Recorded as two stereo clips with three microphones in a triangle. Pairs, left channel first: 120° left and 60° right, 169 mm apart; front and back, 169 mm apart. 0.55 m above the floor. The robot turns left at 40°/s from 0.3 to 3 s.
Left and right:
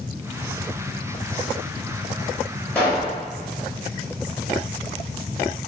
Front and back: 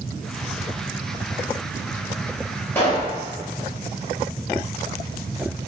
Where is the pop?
55° left, 1.2 m; by 3.2 s 45° left, 1.2 m.